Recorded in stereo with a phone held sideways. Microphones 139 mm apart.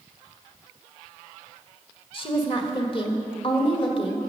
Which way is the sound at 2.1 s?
40° left (ahead or behind).